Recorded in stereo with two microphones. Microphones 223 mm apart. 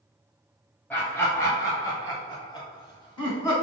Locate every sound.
0.9 s laughter: 10° left (ahead or behind), 1.1 m; by 3.5 s 20° left (ahead or behind), 1.6 m